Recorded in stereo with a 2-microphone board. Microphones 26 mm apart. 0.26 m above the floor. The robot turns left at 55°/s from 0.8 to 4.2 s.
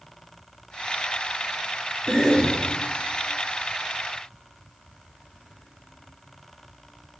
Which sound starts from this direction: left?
A cough, at 2.1 s.